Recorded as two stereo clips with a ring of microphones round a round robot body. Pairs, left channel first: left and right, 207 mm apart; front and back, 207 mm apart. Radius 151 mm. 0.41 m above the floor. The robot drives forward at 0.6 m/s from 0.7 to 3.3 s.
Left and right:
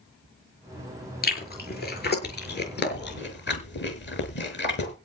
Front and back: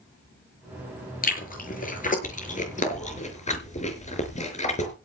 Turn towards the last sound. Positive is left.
turn(degrees=55)